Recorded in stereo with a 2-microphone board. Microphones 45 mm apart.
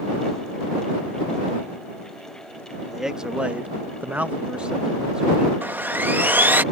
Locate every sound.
2.9 s a man speaking: 10° right (ahead or behind); by 5.5 s 15° right (ahead or behind)
5.6 s sawing: 45° right (ahead or behind)